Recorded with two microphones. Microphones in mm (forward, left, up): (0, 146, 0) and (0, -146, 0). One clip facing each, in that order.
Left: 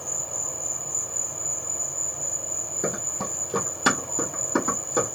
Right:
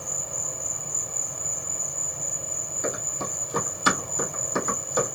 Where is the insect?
25° right (ahead or behind), 1.2 m.